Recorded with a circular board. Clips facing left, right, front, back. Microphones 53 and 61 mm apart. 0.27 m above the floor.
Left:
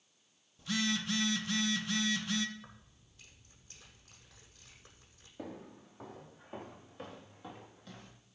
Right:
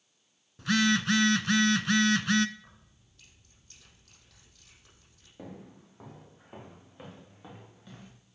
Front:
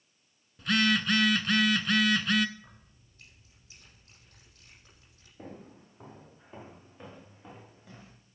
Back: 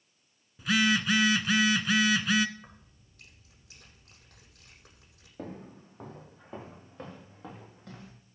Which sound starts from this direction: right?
A phone buzzing, at 0.6 s.